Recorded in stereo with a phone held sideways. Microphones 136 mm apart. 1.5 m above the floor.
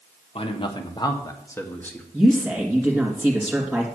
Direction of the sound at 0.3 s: 45° left (ahead or behind).